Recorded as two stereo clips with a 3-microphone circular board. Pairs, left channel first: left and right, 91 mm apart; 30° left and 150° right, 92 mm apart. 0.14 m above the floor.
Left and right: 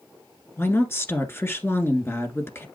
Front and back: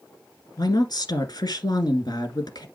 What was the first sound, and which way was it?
A woman speaking, 35° left.